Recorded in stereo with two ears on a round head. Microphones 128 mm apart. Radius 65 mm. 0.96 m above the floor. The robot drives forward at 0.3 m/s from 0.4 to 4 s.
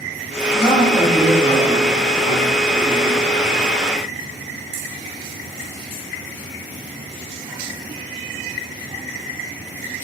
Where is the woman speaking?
Centre (ahead or behind), 1.1 m.